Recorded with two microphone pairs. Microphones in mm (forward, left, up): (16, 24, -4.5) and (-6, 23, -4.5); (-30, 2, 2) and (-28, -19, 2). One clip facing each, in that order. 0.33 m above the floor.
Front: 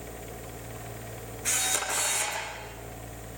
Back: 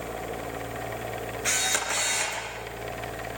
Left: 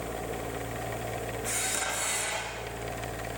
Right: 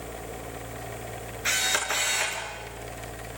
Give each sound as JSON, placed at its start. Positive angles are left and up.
{"t": 1.4, "sound": "a camera shutter", "azimuth_deg": -115, "distance_m": 5.5}